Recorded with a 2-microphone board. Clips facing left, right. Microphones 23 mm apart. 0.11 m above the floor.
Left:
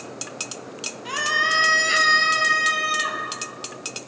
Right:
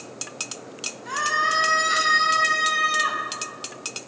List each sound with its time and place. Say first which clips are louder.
1.1 s a scream: left 1 dB; 60° left (ahead or behind), 2.5 m; by 3.2 s 15° left (ahead or behind), 2.5 m